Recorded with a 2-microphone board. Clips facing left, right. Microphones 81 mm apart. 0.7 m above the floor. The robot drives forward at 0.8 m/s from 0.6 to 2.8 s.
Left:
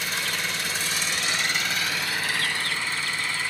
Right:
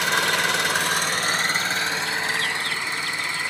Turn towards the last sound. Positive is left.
turn(degrees=-20)  # may be behind; listen again after turning